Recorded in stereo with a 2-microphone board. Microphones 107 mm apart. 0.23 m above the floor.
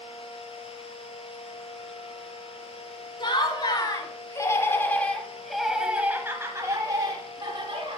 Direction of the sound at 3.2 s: 45° left (ahead or behind).